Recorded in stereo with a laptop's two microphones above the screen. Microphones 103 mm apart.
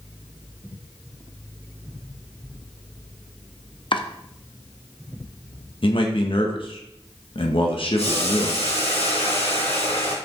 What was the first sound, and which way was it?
Chopping, 55° left (ahead or behind).